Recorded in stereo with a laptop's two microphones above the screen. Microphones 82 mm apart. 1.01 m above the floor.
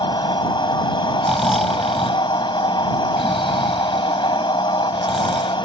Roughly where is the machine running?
Left.